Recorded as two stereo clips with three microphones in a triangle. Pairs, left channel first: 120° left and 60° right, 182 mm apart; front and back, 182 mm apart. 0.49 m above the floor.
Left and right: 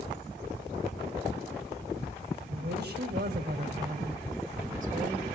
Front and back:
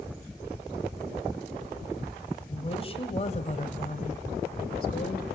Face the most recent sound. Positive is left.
turn(degrees=-15)